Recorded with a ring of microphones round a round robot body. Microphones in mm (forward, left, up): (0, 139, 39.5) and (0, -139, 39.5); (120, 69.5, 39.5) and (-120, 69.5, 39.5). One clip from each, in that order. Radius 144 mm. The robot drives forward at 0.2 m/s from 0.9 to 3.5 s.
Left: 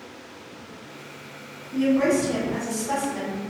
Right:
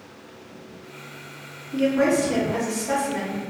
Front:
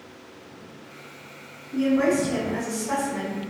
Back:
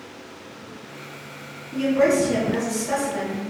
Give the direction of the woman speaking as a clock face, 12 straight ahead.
6 o'clock.